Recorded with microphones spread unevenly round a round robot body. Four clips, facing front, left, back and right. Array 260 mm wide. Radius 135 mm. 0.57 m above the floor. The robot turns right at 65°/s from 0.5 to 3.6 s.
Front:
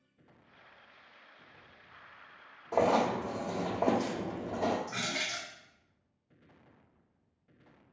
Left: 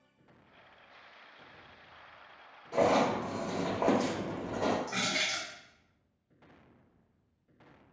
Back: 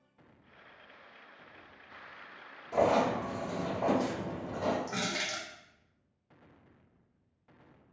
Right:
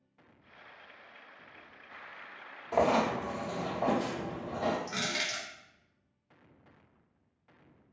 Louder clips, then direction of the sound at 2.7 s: Even, even; 35° right.